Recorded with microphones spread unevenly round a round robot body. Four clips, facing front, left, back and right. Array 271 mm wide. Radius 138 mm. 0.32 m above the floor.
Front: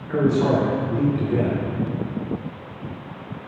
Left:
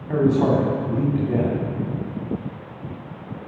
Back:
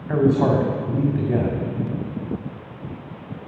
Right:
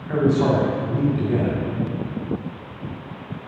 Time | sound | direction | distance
0.1 | a man speaking | 170° left | 2.5 m